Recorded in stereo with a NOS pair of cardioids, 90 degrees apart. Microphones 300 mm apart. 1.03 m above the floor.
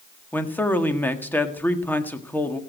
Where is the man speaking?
5° left, 1.6 m.